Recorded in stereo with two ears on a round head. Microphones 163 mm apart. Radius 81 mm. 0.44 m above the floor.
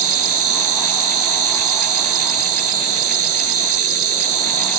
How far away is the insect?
About 1.6 m.